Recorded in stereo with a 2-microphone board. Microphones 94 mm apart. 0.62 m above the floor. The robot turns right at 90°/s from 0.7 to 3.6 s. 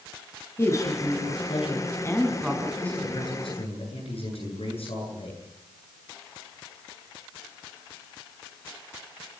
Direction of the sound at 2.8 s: 10° left.